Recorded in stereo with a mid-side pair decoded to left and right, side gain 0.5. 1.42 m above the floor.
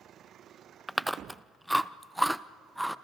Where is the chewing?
Straight ahead, 0.5 m.